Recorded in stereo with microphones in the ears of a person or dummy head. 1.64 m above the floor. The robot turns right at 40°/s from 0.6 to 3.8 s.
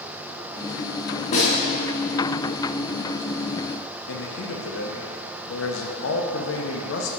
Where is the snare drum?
35° left (ahead or behind), 1.8 m; by 1.5 s 25° left (ahead or behind), 1.8 m.